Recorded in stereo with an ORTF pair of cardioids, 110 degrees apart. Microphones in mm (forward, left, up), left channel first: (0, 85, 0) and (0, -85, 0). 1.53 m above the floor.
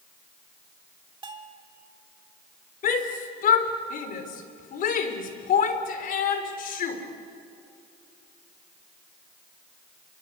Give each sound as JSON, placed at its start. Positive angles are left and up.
{"t": 1.2, "sound": "a bell", "azimuth_deg": -30, "distance_m": 2.5}
{"t": 2.8, "sound": "a shout", "azimuth_deg": 55, "distance_m": 4.0}